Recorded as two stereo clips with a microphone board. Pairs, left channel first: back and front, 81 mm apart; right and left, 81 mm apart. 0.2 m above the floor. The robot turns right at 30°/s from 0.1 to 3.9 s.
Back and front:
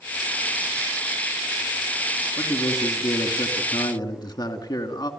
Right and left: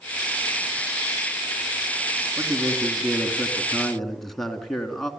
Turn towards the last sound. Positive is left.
turn(degrees=-175)